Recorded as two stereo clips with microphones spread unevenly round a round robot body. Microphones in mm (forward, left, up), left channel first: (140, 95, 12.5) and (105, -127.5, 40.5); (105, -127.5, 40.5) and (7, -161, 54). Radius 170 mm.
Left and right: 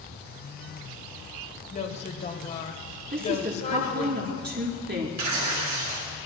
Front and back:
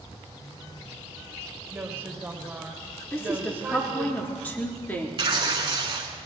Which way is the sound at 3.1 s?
55° right.